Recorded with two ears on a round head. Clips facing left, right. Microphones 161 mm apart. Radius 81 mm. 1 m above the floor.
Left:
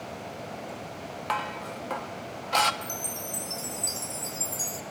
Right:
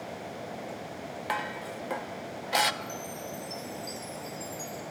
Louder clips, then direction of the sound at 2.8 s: Even; 65° left (ahead or behind).